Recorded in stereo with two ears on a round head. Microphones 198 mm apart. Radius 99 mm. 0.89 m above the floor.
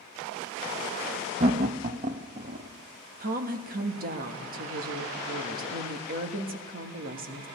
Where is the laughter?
30° right (ahead or behind), 0.5 m; by 2.7 s 35° right (ahead or behind), 1.4 m.